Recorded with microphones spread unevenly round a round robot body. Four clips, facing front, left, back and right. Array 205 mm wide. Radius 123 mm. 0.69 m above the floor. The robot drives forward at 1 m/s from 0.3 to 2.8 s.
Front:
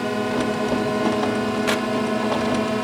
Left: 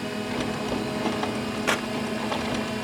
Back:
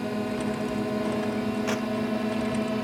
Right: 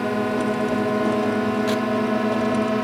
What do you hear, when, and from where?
0.0 s a drone: 45° right; by 2.9 s 50° right
1.7 s tearing paper: 40° left; by 1.9 s 55° left